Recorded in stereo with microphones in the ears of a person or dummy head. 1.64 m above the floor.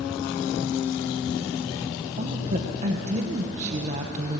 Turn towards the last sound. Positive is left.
turn(degrees=-40)  # may be behind; listen again after turning